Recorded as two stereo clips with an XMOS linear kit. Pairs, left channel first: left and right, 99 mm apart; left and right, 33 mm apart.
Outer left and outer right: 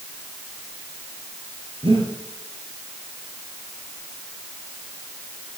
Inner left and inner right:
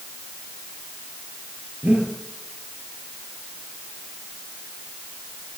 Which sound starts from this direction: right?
Breathing, at 1.8 s.